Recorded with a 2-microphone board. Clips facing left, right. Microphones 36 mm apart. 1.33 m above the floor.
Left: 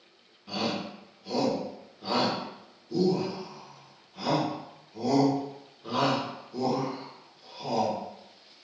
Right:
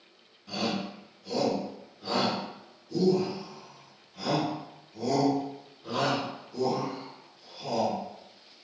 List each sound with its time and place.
0.5 s a shout: 15° left (ahead or behind), 1.1 m